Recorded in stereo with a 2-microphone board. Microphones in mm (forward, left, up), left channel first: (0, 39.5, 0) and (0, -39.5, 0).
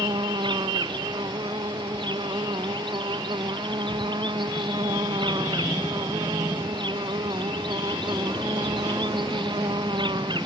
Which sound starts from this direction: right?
An insect, at 0.0 s.